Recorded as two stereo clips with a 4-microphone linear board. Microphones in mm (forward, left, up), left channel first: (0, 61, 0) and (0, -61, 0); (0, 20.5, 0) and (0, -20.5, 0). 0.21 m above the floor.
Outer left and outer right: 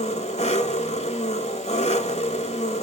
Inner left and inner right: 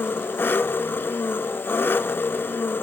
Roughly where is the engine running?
Left.